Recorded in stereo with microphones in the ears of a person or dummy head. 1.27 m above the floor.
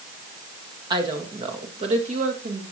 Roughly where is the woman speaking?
Right.